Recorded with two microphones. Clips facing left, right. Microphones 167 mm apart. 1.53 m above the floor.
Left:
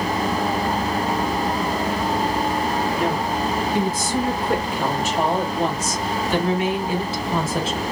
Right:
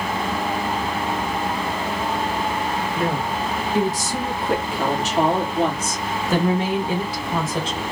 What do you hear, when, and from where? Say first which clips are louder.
3.0 s a woman speaking: left 1 dB; 80° right, 3 m; by 7.8 s 10° left (ahead or behind), 1.2 m